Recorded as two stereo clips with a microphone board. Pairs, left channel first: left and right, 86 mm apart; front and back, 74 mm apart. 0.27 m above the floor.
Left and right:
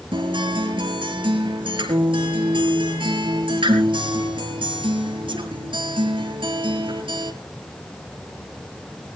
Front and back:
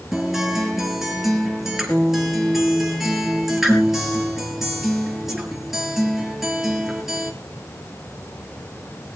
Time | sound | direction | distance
0.1 | a guitar | 95° right | 4.5 m